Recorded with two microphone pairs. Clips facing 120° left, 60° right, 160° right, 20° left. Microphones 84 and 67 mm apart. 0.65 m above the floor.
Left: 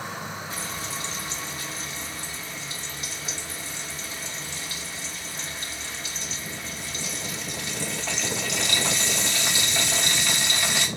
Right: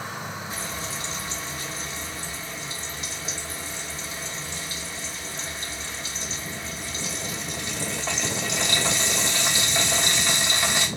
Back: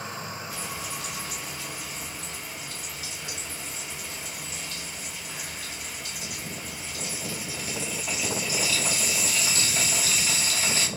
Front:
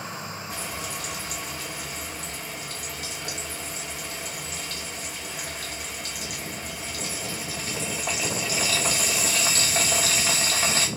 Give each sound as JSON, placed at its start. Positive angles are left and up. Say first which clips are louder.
{"t": 0.5, "sound": "frying", "louder": "right 1 dB, front 2 dB", "azimuth_deg": 0, "distance_m": 0.9}